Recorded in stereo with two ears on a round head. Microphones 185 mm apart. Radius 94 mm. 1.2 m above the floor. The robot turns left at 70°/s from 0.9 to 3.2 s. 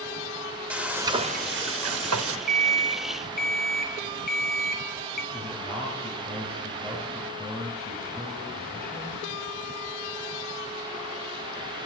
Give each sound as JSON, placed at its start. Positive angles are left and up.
{"t": 0.7, "sound": "frying", "azimuth_deg": -5, "distance_m": 1.1}
{"t": 2.5, "sound": "an alarm clock", "azimuth_deg": -175, "distance_m": 1.9}
{"t": 5.3, "sound": "a man speaking", "side_deg": 10, "distance_m": 8.5}